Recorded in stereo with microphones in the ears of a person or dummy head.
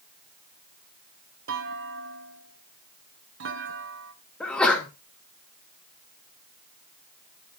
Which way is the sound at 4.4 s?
10° left (ahead or behind).